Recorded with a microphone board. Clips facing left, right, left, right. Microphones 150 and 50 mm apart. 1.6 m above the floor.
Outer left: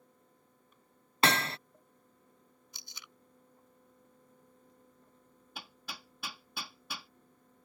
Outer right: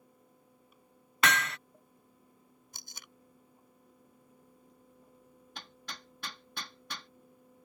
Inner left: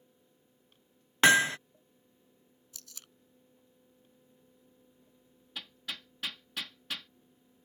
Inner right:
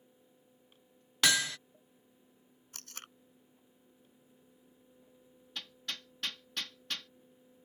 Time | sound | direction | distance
1.2 | hammering | 30° left (ahead or behind) | ?
2.7 | tape being pulled | 50° right (ahead or behind) | ?
5.5 | hammering | 10° left (ahead or behind) | ?